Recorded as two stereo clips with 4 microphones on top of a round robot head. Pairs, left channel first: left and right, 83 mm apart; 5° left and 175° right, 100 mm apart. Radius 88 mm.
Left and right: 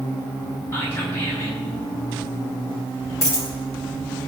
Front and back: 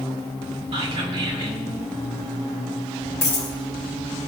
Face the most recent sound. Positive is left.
turn(degrees=55)